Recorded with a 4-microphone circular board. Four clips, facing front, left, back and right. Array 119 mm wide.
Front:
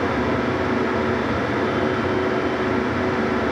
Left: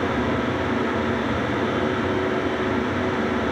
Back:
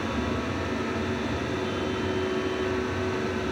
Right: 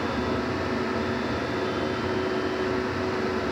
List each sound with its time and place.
Only background noise.